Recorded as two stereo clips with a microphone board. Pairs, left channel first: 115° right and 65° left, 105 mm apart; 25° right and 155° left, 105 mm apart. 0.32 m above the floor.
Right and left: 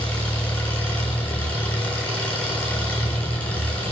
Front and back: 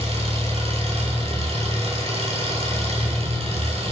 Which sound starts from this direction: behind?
An engine running, at 0.0 s.